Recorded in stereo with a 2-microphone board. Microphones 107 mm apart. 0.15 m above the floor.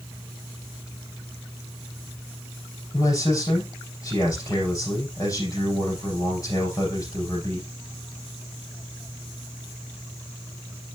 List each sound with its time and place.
2.9 s a man speaking: 35° left (ahead or behind), 5 m